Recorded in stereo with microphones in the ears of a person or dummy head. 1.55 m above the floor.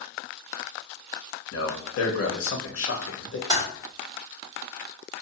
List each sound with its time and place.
1.5 s a man speaking: 80° left, 0.7 m
3.5 s typing on a keyboard: 20° right (ahead or behind), 1.3 m